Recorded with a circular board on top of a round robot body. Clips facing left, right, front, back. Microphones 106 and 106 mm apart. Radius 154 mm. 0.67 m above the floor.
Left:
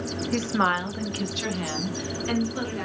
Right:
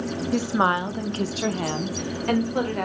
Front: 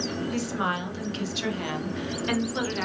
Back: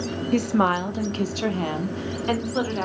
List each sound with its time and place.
0.3 s a woman speaking: 170° right, 1.7 m; by 2.9 s 120° right, 3.5 m